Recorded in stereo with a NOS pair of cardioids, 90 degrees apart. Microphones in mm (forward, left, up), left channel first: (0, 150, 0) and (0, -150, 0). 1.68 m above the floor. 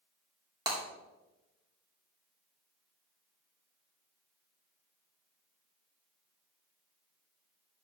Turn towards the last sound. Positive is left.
turn(degrees=-15)